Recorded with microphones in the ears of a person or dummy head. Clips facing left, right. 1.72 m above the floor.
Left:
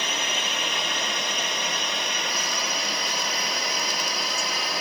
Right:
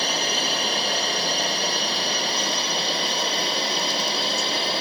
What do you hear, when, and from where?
0.0 s a drone: 35° right (ahead or behind); by 4.8 s 30° right (ahead or behind)